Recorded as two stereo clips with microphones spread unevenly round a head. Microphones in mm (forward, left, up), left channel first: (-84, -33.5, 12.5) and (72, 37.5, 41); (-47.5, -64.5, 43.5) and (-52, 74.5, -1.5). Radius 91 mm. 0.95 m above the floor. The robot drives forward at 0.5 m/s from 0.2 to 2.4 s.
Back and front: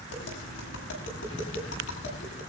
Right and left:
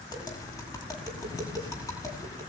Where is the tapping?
150° right, 9.5 m; by 2.4 s 155° right, 10.5 m.